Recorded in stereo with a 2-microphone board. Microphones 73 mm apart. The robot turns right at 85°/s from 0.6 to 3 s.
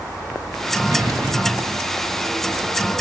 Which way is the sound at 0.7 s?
145° right.